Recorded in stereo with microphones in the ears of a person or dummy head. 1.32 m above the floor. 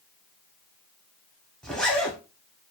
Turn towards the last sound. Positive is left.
turn(degrees=0)  # may be behind; listen again after turning